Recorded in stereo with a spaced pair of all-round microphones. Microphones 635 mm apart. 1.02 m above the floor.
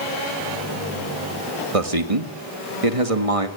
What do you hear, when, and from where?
1.7 s a man speaking: 60° right (ahead or behind), 1.9 m